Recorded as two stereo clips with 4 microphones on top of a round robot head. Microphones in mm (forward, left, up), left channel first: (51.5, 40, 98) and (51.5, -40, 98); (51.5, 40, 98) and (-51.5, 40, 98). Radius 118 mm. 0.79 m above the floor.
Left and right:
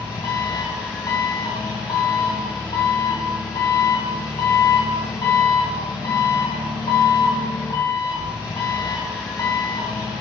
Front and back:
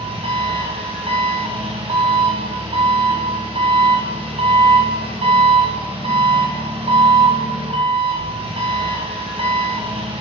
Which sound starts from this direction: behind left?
An engine running, at 0.0 s.